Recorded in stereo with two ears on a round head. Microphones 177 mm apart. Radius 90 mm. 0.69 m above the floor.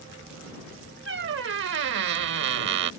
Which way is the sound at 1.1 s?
60° right (ahead or behind).